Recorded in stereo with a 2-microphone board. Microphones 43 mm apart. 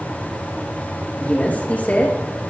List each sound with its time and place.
1.2 s a woman speaking: 40° left (ahead or behind), 6 m